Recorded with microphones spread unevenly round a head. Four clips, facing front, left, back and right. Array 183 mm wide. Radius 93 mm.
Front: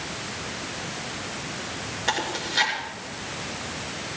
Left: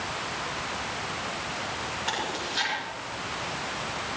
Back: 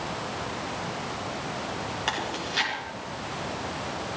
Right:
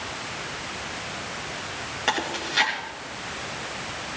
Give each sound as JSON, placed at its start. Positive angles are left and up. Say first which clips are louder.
{"t": 2.1, "sound": "chewing", "louder": "right 7 dB, front 6 dB", "azimuth_deg": -105, "distance_m": 6.0}